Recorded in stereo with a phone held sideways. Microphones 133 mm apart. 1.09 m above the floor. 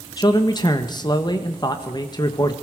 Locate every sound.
0.2 s a man speaking: 35° left (ahead or behind), 1.3 m